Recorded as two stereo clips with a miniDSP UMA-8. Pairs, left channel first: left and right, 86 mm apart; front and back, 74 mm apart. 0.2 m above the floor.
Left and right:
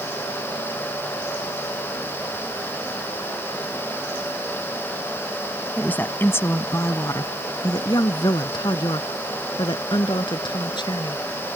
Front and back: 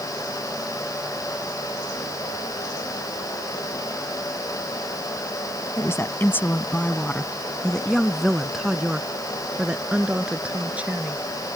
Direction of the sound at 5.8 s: 25° left.